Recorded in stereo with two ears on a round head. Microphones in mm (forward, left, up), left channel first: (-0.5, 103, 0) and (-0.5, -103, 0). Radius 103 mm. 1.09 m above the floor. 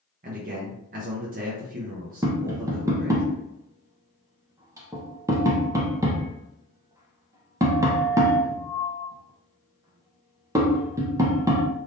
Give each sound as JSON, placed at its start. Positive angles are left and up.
{"t": 0.2, "sound": "a man speaking", "side_deg": -35, "distance_m": 0.7}
{"t": 2.2, "sound": "tapping", "side_deg": -15, "distance_m": 0.7}